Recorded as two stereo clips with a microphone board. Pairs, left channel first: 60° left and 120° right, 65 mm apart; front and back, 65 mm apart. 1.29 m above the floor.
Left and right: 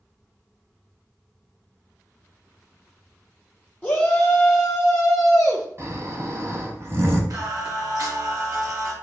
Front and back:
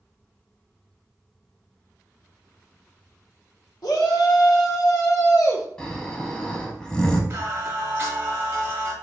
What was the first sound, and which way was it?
A shout, straight ahead.